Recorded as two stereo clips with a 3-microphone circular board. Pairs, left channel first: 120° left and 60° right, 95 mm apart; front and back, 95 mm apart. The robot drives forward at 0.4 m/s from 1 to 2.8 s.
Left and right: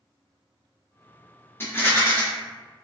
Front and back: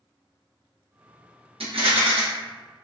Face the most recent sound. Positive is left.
turn(degrees=180)